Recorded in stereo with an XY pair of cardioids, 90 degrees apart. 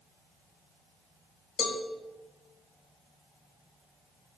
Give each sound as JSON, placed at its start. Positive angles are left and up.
{"t": 1.6, "sound": "a cowbell", "azimuth_deg": 65, "distance_m": 3.5}